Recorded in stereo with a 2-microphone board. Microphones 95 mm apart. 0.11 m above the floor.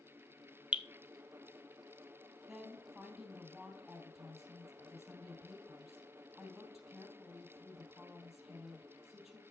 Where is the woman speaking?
5° right (ahead or behind), 3 m.